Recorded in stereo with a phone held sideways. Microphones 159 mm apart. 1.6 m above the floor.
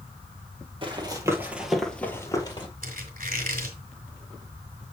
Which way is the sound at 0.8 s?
35° right (ahead or behind).